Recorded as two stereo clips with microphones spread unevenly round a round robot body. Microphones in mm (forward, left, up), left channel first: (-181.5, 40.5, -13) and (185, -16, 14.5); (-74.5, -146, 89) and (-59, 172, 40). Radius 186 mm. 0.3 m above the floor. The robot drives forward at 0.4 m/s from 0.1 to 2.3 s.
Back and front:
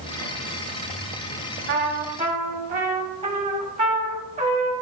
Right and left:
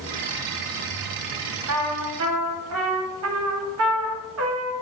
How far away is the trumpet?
About 1.5 m.